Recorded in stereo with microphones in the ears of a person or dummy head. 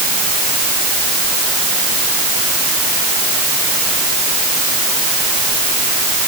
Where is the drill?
No drill in this recording.